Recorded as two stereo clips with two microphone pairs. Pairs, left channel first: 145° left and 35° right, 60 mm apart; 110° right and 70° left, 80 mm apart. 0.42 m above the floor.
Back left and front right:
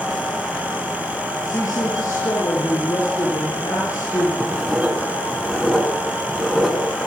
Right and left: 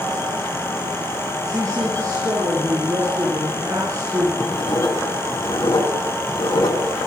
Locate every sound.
1.4 s a woman speaking: 115° left, 8 m
4.4 s writing: 125° right, 4.5 m